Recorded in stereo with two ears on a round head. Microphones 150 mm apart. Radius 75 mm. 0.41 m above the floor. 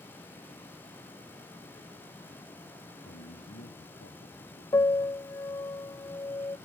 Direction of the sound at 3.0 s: 75° left (ahead or behind).